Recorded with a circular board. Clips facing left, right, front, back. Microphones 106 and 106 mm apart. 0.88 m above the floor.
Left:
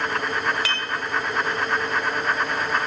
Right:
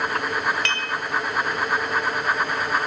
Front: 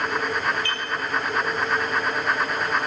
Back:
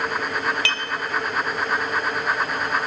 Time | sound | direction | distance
0.7 | dishes clattering | straight behind | 0.7 m